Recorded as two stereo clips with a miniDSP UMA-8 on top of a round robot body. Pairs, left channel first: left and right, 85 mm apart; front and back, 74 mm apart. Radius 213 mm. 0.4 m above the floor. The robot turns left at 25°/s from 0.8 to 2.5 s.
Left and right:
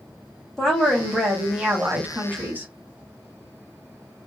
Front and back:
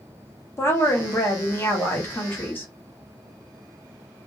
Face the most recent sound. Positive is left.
turn(degrees=-40)